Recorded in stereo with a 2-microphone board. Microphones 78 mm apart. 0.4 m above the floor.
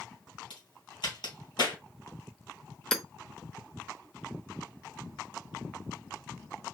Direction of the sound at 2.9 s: 5° left (ahead or behind).